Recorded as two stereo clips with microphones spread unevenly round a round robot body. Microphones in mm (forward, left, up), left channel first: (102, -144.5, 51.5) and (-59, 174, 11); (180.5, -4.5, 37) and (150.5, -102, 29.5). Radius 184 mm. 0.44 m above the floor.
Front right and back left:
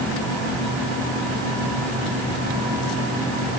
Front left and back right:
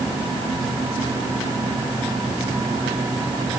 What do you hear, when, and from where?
Only background noise.